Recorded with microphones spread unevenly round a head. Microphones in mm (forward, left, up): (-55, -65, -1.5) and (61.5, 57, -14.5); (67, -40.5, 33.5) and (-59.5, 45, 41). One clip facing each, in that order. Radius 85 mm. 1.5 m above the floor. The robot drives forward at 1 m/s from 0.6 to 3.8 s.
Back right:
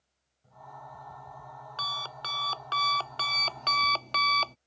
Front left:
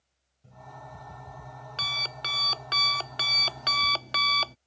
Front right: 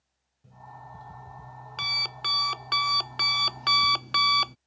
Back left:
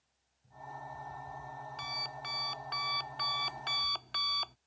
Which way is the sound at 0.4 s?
10° right.